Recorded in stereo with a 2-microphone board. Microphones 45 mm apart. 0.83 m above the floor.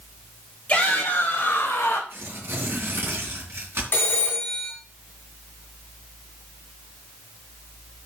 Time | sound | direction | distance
0.7 | a shout | 25° left (ahead or behind) | 3.5 m
2.1 | tearing paper | 55° right (ahead or behind) | 3.5 m
3.9 | a phone ringing | 50° left (ahead or behind) | 3.5 m